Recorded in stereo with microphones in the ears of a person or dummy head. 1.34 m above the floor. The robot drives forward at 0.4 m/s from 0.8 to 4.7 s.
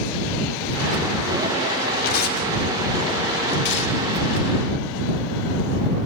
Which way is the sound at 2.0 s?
55° left (ahead or behind).